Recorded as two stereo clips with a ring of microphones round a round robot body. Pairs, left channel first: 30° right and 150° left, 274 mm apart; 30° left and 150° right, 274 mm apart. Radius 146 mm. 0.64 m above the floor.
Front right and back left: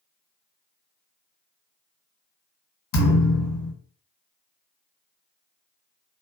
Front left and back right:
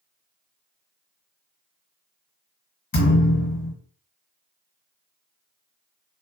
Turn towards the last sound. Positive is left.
turn(degrees=-25)